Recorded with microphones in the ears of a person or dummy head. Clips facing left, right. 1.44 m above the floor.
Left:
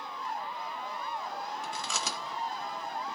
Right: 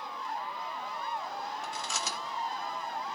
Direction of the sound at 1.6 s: 70° left (ahead or behind).